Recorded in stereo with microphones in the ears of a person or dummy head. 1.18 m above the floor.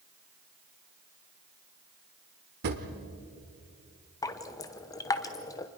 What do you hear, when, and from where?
2.6 s a drawer: 55° right (ahead or behind), 1.4 m
4.2 s dripping: 15° left (ahead or behind), 0.8 m